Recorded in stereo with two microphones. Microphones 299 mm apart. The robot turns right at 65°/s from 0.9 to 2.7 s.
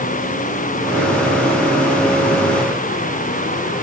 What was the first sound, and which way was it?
Only background noise.